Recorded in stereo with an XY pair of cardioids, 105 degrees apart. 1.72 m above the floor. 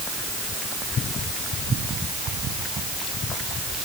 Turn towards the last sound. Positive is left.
No sound to turn to.